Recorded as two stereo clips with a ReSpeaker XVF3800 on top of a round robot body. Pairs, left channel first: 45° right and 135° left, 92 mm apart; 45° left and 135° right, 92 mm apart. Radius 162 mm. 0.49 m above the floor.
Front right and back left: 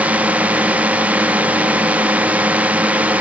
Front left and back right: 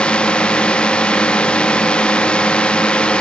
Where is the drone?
100° left.